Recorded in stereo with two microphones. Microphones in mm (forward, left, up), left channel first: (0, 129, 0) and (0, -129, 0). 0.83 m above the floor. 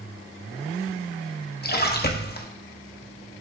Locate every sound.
1.6 s a splash: 40° left (ahead or behind), 1.0 m